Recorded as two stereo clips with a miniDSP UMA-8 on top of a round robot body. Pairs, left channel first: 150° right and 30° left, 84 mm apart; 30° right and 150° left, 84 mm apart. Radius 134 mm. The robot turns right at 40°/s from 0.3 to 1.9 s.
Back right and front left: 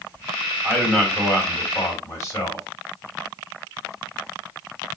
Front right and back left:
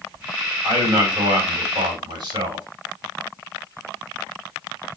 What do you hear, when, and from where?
0.6 s a man speaking: 110° left, 2.5 m; by 2.6 s 160° left, 2.5 m